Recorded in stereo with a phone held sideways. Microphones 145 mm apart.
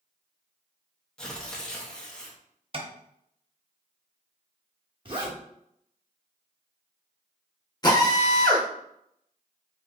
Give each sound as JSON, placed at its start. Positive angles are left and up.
{"t": 1.2, "sound": "tearing paper", "side_deg": 5, "distance_m": 0.6}
{"t": 2.7, "sound": "tapping", "side_deg": -40, "distance_m": 0.6}
{"t": 5.0, "sound": "a zipper", "side_deg": -35, "distance_m": 0.8}
{"t": 7.8, "sound": "a drill", "side_deg": 30, "distance_m": 0.7}